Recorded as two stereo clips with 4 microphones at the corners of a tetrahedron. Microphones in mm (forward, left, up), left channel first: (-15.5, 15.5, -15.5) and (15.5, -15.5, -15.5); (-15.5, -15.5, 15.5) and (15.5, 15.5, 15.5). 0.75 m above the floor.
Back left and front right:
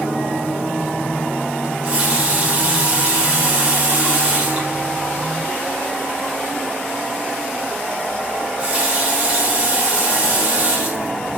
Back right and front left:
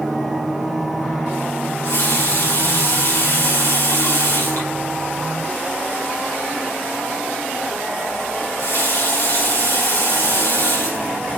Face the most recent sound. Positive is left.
turn(degrees=-110)